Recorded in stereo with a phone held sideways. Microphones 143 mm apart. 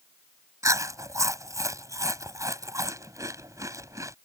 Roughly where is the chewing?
Right.